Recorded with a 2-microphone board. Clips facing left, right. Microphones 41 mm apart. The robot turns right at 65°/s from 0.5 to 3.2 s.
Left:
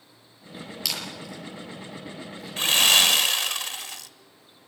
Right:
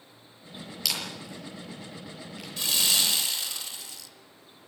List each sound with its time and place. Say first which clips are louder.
0.8 s a camera shutter: even; centre (ahead or behind), 6 m; by 2.5 s 75° right (ahead or behind), 6 m
2.6 s sawing: left 8 dB; 55° left, 0.9 m; by 4.1 s 95° left, 0.9 m